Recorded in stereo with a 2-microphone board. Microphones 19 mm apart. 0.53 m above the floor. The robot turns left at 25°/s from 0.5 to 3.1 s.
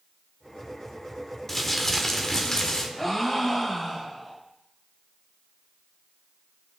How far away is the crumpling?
About 1.3 m.